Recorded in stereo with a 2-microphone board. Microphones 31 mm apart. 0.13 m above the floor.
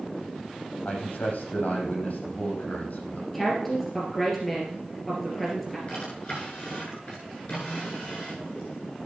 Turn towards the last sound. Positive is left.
turn(degrees=45)  # may be behind; listen again after turning